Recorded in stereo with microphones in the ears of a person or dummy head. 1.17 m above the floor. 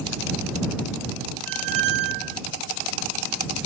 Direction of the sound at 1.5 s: 60° right (ahead or behind).